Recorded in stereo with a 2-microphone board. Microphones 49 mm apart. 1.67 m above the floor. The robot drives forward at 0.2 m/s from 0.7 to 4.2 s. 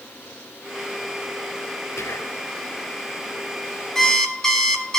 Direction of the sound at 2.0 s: 60° left (ahead or behind).